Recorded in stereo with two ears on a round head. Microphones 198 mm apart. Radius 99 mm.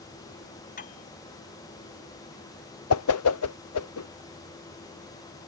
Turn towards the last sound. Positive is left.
turn(degrees=75)  # may be behind; listen again after turning